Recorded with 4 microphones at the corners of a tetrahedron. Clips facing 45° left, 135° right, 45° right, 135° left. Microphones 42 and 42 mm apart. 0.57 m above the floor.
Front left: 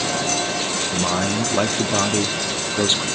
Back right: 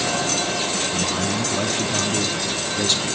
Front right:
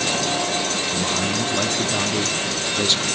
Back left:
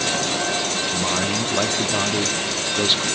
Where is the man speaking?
70° left, 0.8 m.